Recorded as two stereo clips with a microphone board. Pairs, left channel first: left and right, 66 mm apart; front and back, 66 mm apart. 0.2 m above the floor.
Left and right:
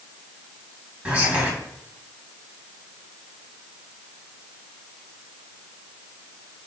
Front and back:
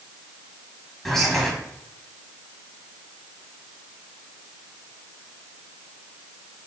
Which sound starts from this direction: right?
Whispering, at 1.1 s.